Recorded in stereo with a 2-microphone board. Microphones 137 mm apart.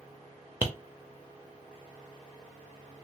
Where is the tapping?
15° right (ahead or behind), 0.7 m.